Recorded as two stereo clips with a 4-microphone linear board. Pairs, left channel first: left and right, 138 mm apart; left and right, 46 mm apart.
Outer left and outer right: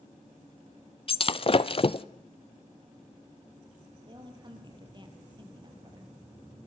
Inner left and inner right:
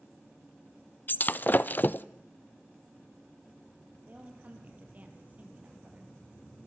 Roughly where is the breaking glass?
Left.